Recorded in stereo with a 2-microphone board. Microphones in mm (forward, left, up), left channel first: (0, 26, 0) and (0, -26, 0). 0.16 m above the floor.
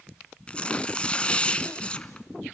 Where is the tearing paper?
25° left (ahead or behind), 0.8 m.